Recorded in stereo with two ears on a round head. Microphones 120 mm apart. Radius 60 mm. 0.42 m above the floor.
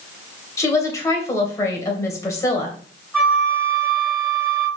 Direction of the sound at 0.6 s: 20° left (ahead or behind).